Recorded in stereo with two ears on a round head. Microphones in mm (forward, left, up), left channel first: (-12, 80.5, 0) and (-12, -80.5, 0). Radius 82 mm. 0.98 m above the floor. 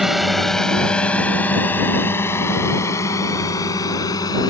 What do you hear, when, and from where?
0.0 s a drone: centre (ahead or behind); by 4.5 s 20° left (ahead or behind)